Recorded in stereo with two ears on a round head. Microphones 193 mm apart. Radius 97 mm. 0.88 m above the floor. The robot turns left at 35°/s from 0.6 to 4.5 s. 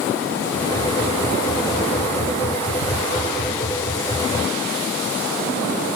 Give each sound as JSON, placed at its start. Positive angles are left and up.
{"t": 2.8, "sound": "ticking", "side_deg": -45, "distance_m": 8.0}